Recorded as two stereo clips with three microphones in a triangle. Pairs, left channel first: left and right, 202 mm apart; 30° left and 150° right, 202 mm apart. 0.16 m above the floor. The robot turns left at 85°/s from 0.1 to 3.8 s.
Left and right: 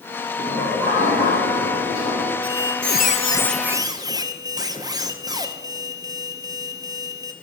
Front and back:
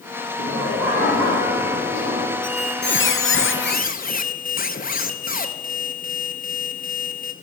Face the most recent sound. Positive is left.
turn(degrees=-20)